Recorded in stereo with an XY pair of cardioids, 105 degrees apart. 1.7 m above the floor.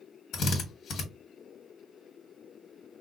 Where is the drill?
65° left, 1.5 m.